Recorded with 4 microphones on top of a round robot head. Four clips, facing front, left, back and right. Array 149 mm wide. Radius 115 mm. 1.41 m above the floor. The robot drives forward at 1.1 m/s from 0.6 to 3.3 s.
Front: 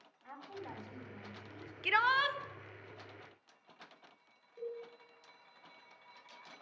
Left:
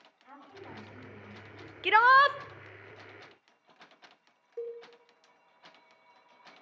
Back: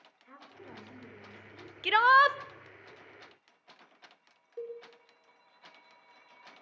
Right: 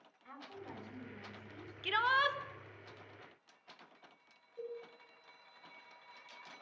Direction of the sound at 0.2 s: 25° left.